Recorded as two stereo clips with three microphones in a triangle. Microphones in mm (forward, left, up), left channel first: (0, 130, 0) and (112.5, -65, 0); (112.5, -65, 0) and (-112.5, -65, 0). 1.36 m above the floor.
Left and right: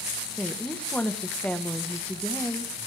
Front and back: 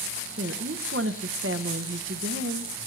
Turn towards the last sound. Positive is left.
turn(degrees=-155)